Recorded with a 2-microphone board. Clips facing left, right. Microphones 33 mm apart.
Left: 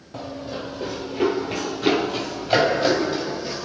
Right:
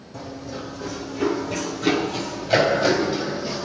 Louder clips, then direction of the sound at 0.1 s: Left 2 dB; 45° left (ahead or behind).